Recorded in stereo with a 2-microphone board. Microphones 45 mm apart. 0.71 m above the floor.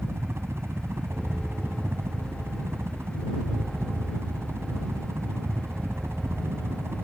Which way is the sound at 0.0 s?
70° right (ahead or behind).